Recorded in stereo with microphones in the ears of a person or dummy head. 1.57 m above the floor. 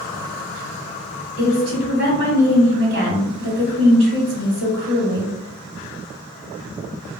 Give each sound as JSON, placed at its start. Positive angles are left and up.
{"t": 1.4, "sound": "a woman speaking", "side_deg": -60, "distance_m": 1.8}